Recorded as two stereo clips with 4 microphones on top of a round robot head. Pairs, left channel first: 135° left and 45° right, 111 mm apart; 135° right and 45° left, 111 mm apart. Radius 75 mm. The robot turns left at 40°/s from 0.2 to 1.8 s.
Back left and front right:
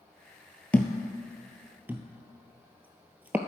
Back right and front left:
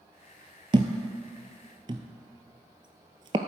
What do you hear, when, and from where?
0.7 s a thud: 65° left, 0.6 m; by 3.4 s 25° left, 0.6 m